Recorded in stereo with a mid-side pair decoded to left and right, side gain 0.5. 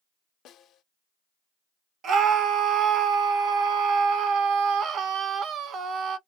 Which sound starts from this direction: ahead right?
A scream, at 2.0 s.